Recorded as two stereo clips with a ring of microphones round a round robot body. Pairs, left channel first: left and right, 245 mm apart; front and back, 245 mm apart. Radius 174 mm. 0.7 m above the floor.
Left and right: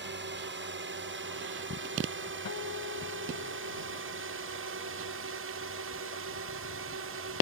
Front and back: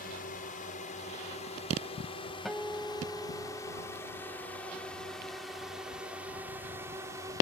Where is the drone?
60° right; by 7.4 s 105° right.